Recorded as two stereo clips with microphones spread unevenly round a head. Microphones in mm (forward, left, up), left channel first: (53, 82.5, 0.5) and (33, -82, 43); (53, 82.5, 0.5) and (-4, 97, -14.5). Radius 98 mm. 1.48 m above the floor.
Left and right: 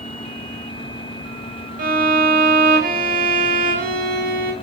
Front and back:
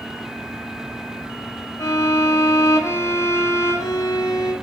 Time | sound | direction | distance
1.8 | a violin | 75° right | 4 m